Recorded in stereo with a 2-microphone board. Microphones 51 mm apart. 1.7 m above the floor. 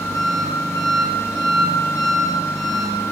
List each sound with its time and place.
0.0 s an engine running: 75° left (ahead or behind), 3.5 m